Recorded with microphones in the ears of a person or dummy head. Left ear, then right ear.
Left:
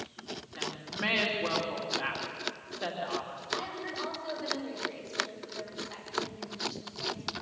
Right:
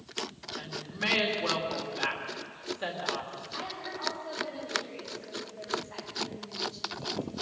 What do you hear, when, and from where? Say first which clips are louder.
0.6 s a woman speaking: even; 5° left (ahead or behind), 3 m
3.5 s a woman speaking: left 3 dB; 85° left, 7.5 m